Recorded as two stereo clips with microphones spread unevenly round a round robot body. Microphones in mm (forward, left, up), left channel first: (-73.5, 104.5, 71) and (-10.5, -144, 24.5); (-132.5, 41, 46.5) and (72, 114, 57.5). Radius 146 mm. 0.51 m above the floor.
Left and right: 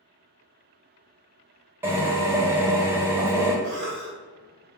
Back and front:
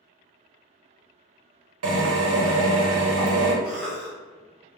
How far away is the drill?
About 0.8 m.